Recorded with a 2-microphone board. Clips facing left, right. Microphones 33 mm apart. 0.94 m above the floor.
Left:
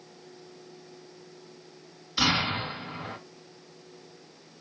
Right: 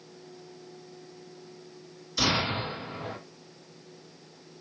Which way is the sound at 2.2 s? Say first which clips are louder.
Left 1 dB; 30° left (ahead or behind).